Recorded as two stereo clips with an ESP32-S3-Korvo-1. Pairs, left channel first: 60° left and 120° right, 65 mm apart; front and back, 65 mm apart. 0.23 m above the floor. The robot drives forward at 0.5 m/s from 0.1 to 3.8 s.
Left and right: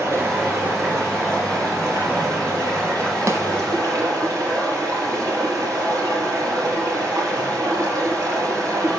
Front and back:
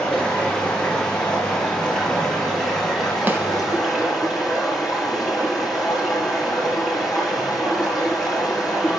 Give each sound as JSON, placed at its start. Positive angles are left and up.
{"t": 0.0, "sound": "running water", "azimuth_deg": -70, "distance_m": 5.5}
{"t": 3.3, "sound": "a snare drum", "azimuth_deg": -130, "distance_m": 1.2}